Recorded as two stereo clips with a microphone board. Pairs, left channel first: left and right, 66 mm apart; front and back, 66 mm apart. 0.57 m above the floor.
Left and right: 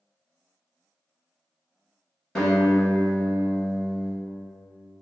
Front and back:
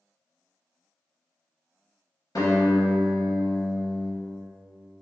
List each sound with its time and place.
2.4 s a guitar: 5° left, 2.0 m